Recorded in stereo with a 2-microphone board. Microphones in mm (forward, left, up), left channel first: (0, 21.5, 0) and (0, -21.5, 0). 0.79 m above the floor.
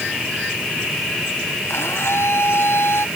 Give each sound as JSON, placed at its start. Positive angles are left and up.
{"t": 1.7, "sound": "a blender", "side_deg": 80}